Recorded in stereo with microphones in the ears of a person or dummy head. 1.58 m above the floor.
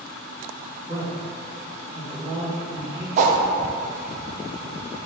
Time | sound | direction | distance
0.9 | a man speaking | 30° right (ahead or behind) | 1.8 m
3.2 | a whoosh | 45° right (ahead or behind) | 0.6 m